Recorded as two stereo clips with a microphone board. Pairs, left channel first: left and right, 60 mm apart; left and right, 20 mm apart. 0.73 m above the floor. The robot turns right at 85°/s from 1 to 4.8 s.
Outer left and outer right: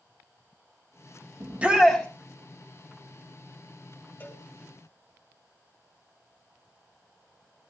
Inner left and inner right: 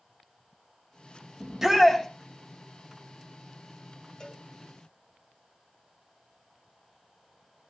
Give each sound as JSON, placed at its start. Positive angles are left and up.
{"t": 1.4, "sound": "a shout", "azimuth_deg": -40, "distance_m": 3.0}
{"t": 4.2, "sound": "a cowbell", "side_deg": 35, "distance_m": 2.5}